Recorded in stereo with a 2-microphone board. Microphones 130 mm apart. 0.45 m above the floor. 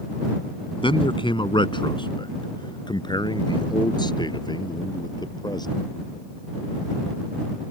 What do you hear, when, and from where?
0.8 s a man speaking: 40° left (ahead or behind); by 5.8 s 30° left (ahead or behind)